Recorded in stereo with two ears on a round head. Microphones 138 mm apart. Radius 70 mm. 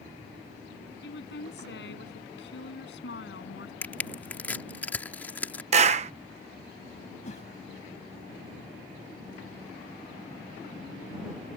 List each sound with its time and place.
1.0 s a woman speaking: 85° left; by 3.7 s 90° left
3.8 s crushing: 10° left (ahead or behind)
5.7 s a clap: 45° right (ahead or behind)
7.2 s a whoosh: 45° left (ahead or behind)